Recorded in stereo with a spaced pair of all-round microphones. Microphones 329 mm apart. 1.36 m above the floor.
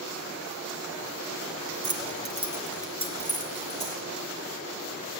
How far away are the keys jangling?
About 0.7 m.